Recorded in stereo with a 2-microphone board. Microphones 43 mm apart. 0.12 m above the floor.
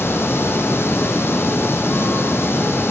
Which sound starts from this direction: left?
Running water, at 0.0 s.